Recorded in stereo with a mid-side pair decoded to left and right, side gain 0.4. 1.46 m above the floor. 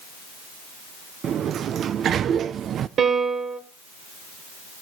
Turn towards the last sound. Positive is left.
turn(degrees=-70)